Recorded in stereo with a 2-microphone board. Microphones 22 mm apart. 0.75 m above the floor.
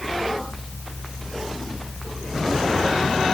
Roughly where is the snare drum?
I don't hear a snare drum.